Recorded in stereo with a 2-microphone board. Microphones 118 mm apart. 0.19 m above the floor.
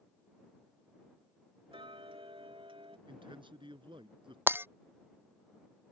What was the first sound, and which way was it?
Ticking, 50° right (ahead or behind).